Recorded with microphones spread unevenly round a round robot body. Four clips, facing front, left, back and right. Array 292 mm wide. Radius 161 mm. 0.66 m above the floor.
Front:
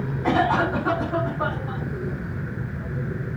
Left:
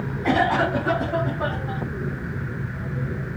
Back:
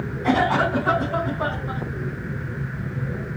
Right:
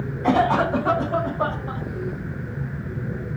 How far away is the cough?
About 3.5 m.